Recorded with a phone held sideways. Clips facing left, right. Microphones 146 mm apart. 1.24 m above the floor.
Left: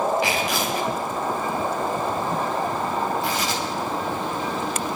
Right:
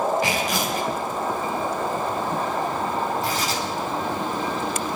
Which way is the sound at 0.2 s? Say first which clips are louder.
Even; 45° right (ahead or behind).